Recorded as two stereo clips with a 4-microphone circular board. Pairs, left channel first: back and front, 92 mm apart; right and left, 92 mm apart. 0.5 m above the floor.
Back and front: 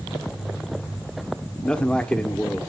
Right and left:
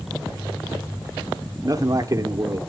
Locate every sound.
1.6 s a man speaking: 105° left, 1.1 m